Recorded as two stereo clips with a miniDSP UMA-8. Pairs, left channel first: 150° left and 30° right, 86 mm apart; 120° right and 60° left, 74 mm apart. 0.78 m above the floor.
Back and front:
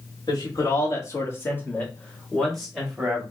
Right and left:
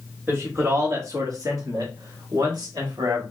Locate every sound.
0.3 s a man speaking: 115° left, 2.0 m; by 3.2 s 50° left, 2 m